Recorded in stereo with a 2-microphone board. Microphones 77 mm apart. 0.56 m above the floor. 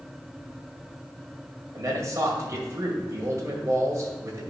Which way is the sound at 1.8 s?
40° right (ahead or behind).